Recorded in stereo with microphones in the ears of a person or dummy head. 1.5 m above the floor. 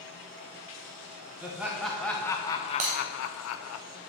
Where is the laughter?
5° right (ahead or behind), 1.2 m; by 3.8 s 75° left (ahead or behind), 0.7 m.